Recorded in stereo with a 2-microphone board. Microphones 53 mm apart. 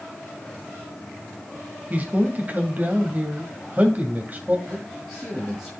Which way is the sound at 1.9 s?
35° right (ahead or behind).